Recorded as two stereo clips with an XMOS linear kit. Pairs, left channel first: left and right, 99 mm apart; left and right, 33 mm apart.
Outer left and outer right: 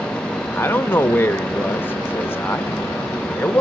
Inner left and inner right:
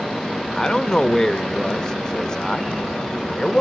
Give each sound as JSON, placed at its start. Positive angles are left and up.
{"t": 0.5, "sound": "a man speaking", "side_deg": 20, "distance_m": 0.8}